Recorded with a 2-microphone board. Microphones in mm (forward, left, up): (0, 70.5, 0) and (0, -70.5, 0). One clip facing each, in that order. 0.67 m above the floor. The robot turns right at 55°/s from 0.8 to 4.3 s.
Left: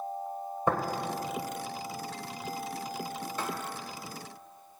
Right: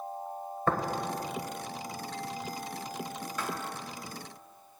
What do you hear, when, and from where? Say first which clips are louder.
0.7 s tapping: left 1 dB; 15° left (ahead or behind), 1.1 m
3.4 s writing: left 1 dB; 25° left (ahead or behind), 1.3 m; by 3.5 s 30° left (ahead or behind), 1.3 m